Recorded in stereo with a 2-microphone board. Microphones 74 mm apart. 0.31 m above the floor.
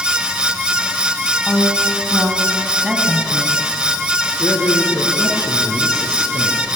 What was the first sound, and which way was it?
A woman speaking, 10° right (ahead or behind).